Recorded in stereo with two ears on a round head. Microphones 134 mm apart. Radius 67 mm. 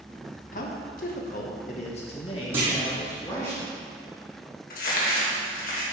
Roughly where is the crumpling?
Left.